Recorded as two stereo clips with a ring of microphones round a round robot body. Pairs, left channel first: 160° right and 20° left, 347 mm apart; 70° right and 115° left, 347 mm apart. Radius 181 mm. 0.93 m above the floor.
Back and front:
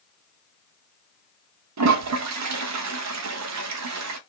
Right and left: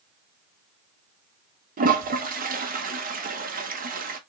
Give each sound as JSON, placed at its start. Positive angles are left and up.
{"t": 1.8, "sound": "a toilet flushing", "azimuth_deg": 50, "distance_m": 0.8}